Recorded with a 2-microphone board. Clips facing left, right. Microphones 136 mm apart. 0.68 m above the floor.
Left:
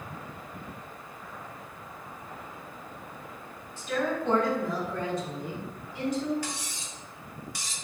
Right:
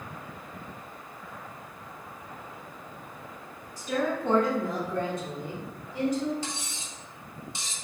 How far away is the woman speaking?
About 1.2 m.